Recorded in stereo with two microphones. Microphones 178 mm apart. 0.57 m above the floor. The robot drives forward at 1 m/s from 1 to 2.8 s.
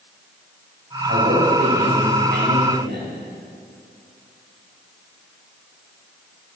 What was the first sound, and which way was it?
A man speaking, 65° right (ahead or behind).